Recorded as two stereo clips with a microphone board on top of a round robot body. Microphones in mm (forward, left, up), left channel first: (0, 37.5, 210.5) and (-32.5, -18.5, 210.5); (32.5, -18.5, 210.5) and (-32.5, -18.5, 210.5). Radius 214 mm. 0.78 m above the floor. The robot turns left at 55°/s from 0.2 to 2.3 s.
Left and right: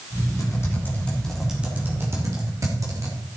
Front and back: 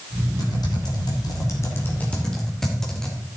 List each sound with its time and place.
0.4 s typing on a keyboard: 25° left, 2.5 m; by 3.2 s 80° right, 2.5 m